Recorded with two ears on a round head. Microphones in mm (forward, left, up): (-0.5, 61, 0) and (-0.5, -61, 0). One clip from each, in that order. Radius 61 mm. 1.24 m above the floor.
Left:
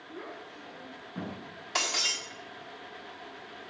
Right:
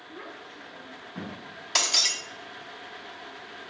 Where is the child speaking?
50° right (ahead or behind), 7.5 m.